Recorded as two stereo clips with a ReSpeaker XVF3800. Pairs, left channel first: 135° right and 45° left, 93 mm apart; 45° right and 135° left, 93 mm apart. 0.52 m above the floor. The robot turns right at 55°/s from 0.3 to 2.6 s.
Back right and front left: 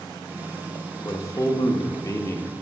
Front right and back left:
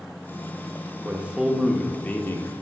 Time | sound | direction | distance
1.1 | a man speaking | 165° right | 0.8 m